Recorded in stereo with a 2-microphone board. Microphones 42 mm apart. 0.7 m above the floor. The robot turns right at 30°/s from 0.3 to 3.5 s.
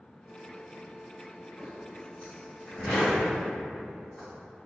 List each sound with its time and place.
1.6 s a zipper: 20° left (ahead or behind), 1.3 m; by 4.3 s 50° left (ahead or behind), 1.3 m